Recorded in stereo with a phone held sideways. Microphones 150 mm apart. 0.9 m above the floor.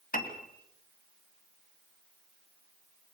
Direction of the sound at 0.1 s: 70° left (ahead or behind).